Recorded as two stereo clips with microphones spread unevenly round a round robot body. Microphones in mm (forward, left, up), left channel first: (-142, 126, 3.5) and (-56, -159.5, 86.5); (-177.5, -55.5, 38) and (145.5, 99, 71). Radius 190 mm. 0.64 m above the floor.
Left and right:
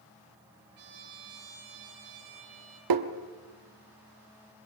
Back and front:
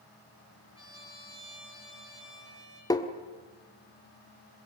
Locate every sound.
0.8 s a trumpet: 80° right, 6.5 m
2.9 s tapping: 80° right, 1.4 m